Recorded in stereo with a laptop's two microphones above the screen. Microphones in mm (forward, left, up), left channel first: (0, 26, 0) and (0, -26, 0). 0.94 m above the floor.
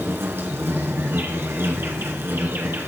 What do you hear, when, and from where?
0.0 s an insect: 50° right (ahead or behind), 1.7 m